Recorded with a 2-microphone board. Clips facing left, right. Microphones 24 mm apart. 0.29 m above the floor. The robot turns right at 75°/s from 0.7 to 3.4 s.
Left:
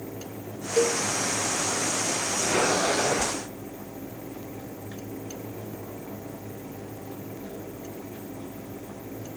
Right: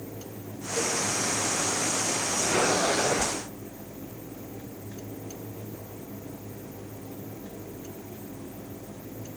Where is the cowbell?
80° left, 1.2 m.